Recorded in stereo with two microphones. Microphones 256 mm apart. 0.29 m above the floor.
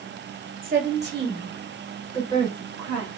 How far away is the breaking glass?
I don't hear breaking glass.